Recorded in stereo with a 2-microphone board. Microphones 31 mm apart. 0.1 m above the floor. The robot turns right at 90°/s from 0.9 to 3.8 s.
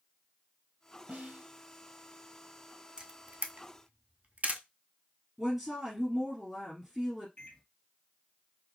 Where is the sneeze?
No sneeze in this recording.